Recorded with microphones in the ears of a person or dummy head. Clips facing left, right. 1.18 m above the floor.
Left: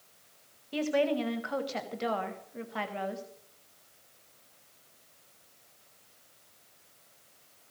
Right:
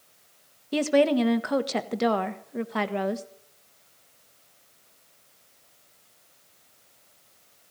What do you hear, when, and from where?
0.7 s a woman speaking: 65° right (ahead or behind), 1.4 m